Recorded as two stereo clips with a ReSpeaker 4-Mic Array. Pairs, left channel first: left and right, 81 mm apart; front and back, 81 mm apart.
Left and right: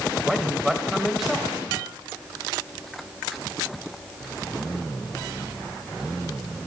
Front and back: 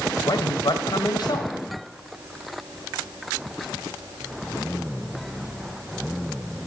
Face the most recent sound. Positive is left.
turn(degrees=-5)